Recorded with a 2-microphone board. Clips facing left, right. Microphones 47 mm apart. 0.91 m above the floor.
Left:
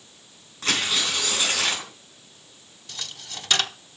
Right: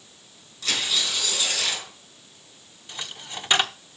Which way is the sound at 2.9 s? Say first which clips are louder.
Right 2 dB; 20° right (ahead or behind).